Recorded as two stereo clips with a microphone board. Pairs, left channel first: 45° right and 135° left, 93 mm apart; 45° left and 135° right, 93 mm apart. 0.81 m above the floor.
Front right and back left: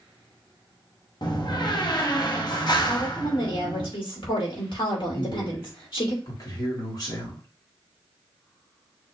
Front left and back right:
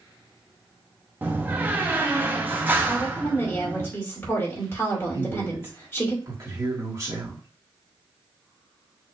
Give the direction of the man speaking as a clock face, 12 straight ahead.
3 o'clock.